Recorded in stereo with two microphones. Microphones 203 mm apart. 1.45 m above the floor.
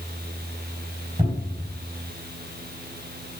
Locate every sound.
1.2 s a cupboard door: 30° right (ahead or behind), 3.5 m